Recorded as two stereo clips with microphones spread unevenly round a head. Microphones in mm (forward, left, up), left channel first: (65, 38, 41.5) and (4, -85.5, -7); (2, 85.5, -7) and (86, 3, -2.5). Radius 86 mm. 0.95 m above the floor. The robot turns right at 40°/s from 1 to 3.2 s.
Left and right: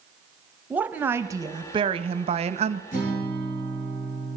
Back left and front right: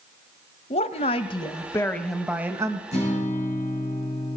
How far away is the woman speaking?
About 0.7 m.